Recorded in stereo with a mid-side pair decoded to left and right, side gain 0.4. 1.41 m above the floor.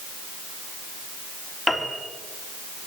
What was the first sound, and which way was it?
A piano, straight ahead.